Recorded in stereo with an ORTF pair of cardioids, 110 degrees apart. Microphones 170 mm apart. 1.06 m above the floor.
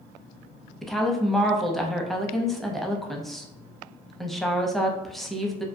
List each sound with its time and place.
0.8 s a woman speaking: straight ahead, 0.5 m